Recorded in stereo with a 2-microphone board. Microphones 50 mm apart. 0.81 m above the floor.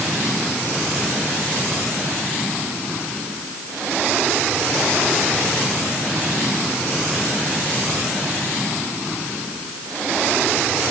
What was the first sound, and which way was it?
Only background noise.